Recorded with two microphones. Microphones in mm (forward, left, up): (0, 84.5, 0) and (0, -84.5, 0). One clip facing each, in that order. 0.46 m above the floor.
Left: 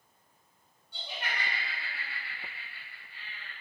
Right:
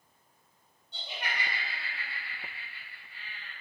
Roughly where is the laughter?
Right.